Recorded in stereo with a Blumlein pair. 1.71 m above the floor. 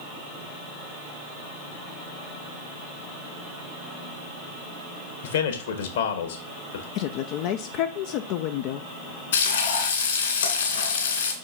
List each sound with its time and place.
5.2 s a man speaking: 60° left, 1.7 m
7.0 s a woman speaking: 40° left, 0.6 m
9.3 s frying: 60° left, 2 m